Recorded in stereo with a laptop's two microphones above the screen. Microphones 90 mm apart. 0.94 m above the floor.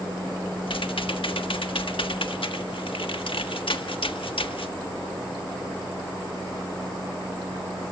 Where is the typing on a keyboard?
75° left (ahead or behind), 1.5 m.